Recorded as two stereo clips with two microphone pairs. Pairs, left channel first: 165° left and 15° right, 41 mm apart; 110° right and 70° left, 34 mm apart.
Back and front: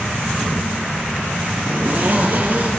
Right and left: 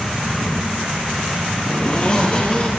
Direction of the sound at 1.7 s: 55° right.